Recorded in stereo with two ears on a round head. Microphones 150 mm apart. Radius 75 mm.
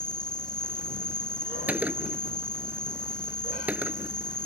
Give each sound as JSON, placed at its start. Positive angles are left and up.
{"t": 0.0, "sound": "an insect", "side_deg": 5}
{"t": 1.7, "sound": "a gunshot", "side_deg": -10}